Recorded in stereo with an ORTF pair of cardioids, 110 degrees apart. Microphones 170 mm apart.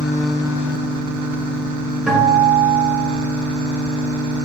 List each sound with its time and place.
2.1 s a guitar: 5° right, 3 m